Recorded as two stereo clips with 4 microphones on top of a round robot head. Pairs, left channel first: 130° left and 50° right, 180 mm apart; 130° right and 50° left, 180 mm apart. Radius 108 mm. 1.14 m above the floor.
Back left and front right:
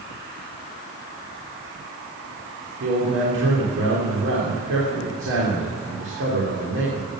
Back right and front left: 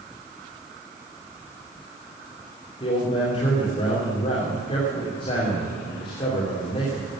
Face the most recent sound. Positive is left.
turn(degrees=-65)